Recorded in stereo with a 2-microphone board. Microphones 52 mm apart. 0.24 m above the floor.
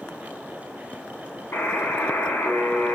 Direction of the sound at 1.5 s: 60° left (ahead or behind).